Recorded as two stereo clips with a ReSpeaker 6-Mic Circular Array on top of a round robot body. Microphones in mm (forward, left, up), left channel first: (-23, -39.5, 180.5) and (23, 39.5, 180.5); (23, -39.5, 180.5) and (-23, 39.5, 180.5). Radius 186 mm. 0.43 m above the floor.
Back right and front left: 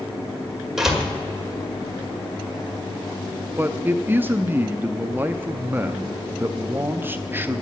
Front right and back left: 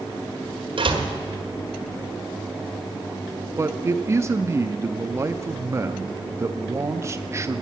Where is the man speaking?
105° left, 0.7 m.